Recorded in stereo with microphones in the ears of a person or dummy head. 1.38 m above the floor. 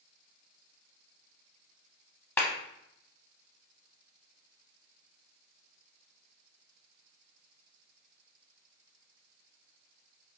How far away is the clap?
About 0.7 m.